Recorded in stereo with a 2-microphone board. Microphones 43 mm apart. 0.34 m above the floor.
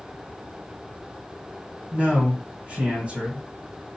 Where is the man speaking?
35° right (ahead or behind), 2 m.